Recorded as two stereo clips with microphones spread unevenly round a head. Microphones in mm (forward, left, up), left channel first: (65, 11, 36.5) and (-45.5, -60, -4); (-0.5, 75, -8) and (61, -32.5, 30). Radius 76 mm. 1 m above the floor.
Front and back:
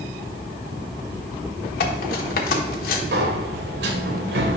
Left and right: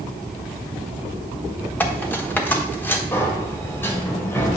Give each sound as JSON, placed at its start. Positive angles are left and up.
{"t": 1.8, "sound": "cutlery clinking", "azimuth_deg": 40, "distance_m": 1.3}
{"t": 3.1, "sound": "a sliding door", "azimuth_deg": -155, "distance_m": 1.0}